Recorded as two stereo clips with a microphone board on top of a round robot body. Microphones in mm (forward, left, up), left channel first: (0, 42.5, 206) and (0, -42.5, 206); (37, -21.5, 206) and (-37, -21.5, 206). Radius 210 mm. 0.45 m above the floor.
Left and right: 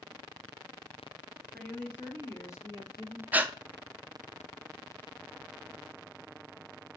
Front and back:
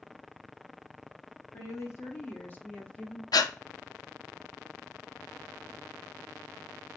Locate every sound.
1.5 s a woman speaking: 15° left, 1.5 m; by 3.2 s 70° left, 1.9 m
3.3 s breathing: 20° right, 0.6 m